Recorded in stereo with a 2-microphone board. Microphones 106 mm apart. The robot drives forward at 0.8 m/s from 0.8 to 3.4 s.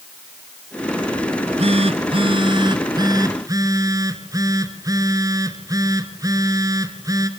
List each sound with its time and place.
1.3 s a phone buzzing: 85° right, 1.1 m; by 7.3 s 35° right (ahead or behind), 1.9 m